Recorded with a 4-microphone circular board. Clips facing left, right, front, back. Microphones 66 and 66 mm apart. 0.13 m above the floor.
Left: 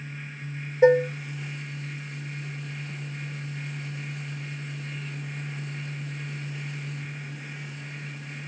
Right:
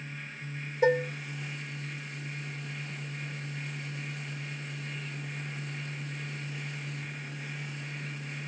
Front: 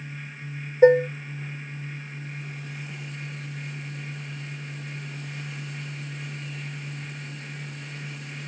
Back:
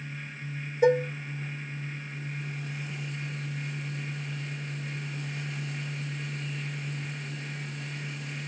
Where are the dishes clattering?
35° left, 1.4 m.